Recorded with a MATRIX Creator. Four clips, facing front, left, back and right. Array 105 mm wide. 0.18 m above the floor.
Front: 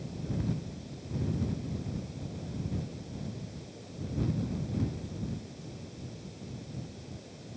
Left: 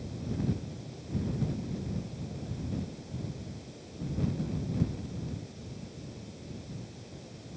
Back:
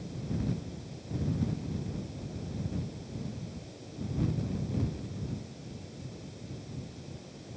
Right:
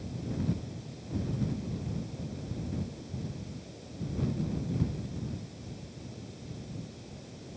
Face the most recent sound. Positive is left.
No sound to turn to.